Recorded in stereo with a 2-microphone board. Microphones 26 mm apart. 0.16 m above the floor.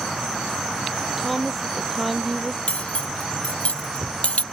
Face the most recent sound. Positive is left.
turn(degrees=70)  # may be behind; listen again after turning